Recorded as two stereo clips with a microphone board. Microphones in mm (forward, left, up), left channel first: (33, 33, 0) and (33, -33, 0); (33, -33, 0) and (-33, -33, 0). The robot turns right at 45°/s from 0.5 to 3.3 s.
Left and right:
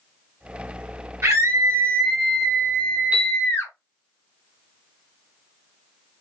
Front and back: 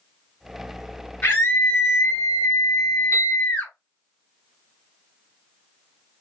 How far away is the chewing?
I don't hear chewing.